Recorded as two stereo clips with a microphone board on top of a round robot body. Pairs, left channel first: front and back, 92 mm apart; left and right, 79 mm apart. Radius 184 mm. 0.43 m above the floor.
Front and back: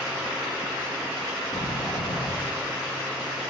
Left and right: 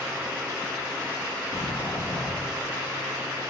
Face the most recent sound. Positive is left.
turn(degrees=40)